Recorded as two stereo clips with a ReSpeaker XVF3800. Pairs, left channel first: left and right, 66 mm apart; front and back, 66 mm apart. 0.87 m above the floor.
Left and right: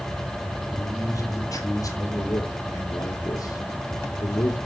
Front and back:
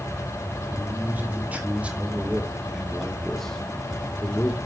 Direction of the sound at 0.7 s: 125° left.